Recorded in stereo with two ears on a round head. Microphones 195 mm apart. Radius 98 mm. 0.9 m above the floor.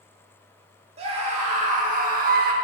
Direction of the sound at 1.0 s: 30° right (ahead or behind).